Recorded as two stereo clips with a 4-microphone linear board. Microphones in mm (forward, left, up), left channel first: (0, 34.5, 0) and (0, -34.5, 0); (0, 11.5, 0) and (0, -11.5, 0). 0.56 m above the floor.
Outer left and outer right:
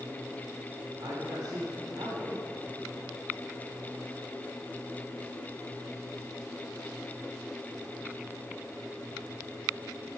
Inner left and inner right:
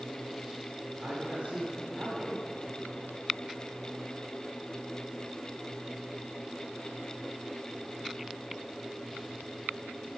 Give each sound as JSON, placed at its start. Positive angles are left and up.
{"t": 1.0, "sound": "a man speaking", "side_deg": -60, "distance_m": 1.8}